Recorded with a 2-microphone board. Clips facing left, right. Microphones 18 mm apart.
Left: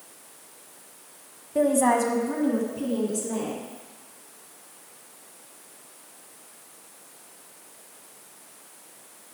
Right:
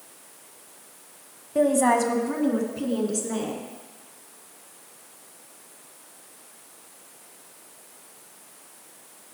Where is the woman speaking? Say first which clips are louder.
Right 1 dB; 10° right (ahead or behind), 1.1 m; by 3.6 s 40° right (ahead or behind), 2.5 m.